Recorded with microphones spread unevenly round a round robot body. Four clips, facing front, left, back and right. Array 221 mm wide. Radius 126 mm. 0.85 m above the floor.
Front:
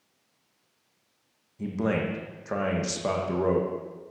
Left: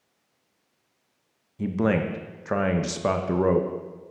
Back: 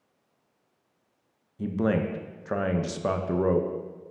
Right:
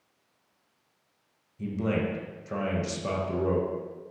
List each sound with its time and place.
1.6 s a man speaking: 70° left, 0.5 m